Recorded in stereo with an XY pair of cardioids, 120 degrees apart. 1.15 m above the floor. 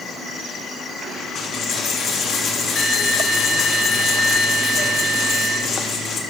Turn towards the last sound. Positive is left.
turn(degrees=45)